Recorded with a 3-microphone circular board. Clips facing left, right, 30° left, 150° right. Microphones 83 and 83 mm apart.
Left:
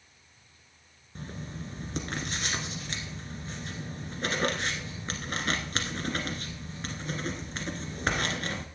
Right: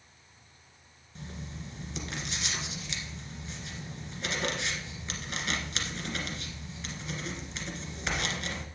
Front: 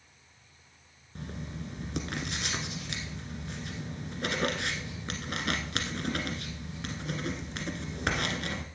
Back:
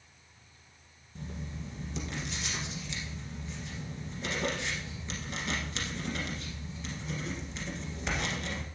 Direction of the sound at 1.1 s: 50° left.